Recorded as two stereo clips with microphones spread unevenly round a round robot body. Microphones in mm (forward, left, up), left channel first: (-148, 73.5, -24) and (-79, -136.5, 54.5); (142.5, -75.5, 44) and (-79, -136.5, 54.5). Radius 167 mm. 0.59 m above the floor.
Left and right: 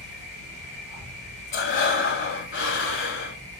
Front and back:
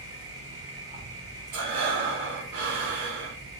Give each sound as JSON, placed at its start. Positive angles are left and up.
{"t": 0.0, "sound": "an insect", "azimuth_deg": 150, "distance_m": 2.0}
{"t": 1.5, "sound": "breathing", "azimuth_deg": 150, "distance_m": 0.6}